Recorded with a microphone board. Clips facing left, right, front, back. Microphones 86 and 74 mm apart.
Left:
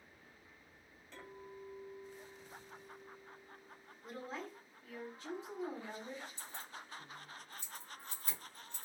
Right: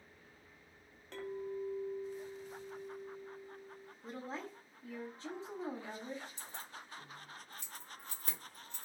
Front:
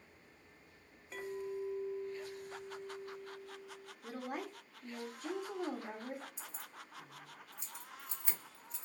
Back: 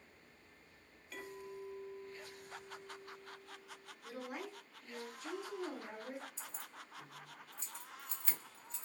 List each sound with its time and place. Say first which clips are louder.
1.1 s a clink: right 11 dB, front 7 dB; 65° right, 1.0 m
4.0 s a woman speaking: right 1 dB, front 3 dB; 35° right, 1.2 m
6.4 s keys jangling: even, even; 75° right, 1.4 m